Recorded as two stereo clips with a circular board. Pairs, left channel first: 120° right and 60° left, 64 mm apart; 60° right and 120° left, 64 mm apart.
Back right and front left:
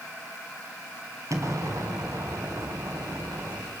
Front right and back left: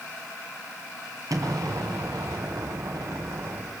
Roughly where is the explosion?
Left.